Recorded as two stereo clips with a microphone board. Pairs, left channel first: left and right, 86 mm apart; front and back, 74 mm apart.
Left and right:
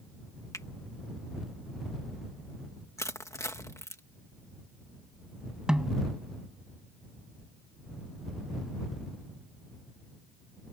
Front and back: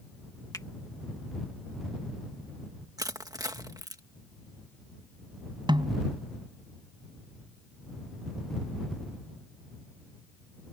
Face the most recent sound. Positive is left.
turn(degrees=-170)